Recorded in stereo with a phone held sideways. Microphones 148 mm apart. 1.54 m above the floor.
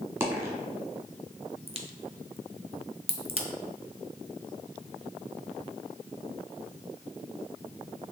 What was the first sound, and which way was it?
A dropped coin, 15° right (ahead or behind).